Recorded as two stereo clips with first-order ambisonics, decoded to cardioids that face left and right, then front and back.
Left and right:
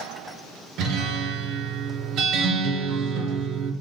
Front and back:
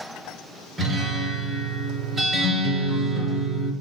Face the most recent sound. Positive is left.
turn(degrees=-110)